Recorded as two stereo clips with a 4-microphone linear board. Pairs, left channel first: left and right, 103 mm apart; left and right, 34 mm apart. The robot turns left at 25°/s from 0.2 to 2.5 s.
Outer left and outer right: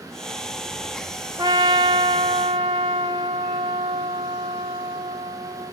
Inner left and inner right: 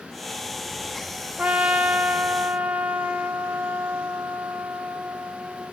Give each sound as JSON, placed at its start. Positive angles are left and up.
{"t": 1.4, "sound": "a trumpet", "side_deg": -35, "distance_m": 0.6}